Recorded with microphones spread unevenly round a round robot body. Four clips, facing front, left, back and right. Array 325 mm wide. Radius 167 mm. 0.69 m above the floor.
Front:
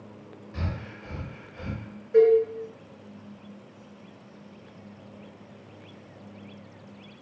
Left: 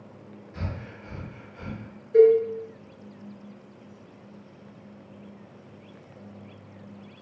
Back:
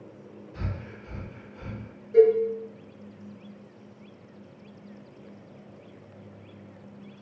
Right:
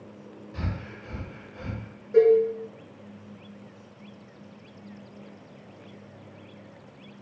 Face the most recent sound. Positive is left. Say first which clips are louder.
# left 2 dB, even
turn(degrees=-55)